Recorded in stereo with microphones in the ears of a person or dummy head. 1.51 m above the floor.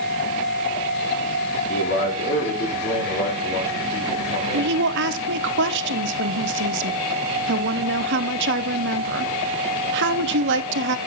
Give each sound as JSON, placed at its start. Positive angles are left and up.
{"t": 1.7, "sound": "a man speaking", "side_deg": 50, "distance_m": 3.5}
{"t": 4.5, "sound": "a woman speaking", "side_deg": -65, "distance_m": 1.0}